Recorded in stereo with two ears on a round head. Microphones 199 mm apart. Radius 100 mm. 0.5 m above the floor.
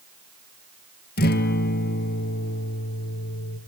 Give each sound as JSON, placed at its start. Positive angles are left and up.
{"t": 1.2, "sound": "a guitar", "side_deg": 50, "distance_m": 4.0}